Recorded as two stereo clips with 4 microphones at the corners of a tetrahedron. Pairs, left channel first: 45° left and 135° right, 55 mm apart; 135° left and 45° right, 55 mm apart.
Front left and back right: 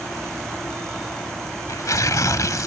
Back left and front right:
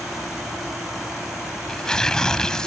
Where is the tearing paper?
60° left.